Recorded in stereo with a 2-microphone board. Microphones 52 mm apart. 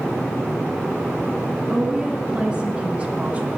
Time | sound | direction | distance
1.7 | a woman speaking | 20° right (ahead or behind) | 1.9 m